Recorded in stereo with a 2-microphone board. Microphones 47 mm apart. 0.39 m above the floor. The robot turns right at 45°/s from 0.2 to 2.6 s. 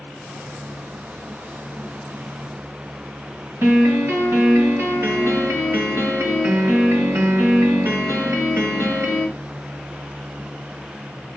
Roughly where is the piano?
Right.